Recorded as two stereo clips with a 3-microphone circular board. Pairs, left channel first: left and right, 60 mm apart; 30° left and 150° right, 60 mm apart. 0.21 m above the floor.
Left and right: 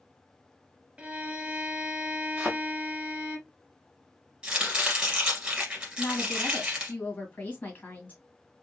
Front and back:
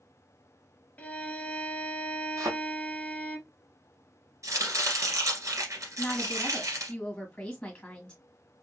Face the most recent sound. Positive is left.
turn(degrees=90)